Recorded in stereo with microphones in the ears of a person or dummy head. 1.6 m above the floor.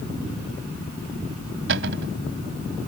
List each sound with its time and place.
1.7 s a cupboard door: 70° right (ahead or behind)